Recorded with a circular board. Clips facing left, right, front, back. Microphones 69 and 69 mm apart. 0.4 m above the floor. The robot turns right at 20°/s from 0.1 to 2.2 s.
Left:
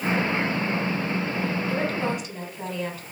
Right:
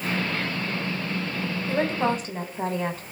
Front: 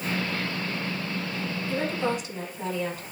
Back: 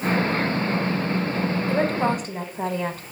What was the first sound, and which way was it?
A woman speaking, 150° right.